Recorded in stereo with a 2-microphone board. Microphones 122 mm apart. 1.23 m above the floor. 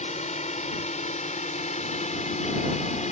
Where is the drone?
75° left (ahead or behind).